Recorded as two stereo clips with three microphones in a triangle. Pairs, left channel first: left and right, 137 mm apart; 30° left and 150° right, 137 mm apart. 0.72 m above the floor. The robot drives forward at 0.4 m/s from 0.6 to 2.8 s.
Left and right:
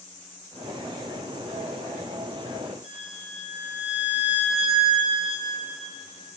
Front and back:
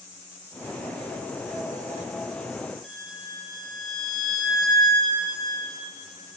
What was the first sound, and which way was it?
A violin, 60° right.